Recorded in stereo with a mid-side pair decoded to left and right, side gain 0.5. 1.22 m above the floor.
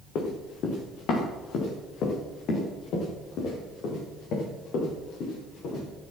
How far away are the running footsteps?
About 5 m.